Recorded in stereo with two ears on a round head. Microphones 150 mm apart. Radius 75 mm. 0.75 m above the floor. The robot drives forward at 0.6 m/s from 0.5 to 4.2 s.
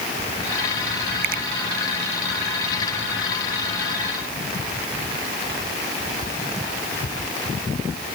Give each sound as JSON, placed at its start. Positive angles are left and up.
{"t": 1.2, "sound": "a finger snap", "side_deg": -55}